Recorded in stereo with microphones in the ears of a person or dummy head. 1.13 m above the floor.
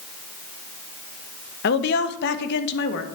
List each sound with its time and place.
1.6 s a woman speaking: 60° left (ahead or behind), 1.2 m